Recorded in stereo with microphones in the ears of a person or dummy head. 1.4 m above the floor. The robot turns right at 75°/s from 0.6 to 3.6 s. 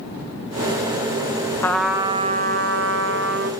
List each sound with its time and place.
1.6 s a trumpet: 165° left, 1.3 m; by 3.5 s 55° right, 1.3 m